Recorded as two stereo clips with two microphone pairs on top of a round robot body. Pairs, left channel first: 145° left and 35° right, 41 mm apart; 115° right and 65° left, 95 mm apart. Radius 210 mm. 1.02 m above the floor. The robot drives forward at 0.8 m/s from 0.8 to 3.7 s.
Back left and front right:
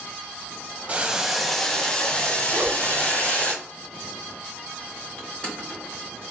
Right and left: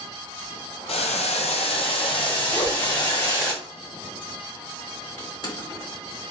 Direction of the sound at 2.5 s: 65° right.